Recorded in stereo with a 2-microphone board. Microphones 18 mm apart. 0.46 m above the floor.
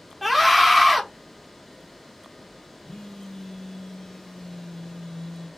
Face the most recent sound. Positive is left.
turn(degrees=25)  # may be behind; listen again after turning